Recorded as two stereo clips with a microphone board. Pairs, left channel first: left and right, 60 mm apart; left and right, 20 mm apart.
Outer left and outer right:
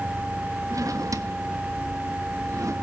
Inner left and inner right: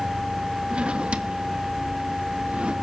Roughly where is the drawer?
Right.